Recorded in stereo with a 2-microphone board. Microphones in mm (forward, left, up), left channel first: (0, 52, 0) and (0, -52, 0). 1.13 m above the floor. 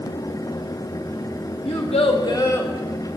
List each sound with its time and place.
1.6 s a child speaking: 70° left (ahead or behind), 0.9 m; by 2.7 s 20° left (ahead or behind), 1.4 m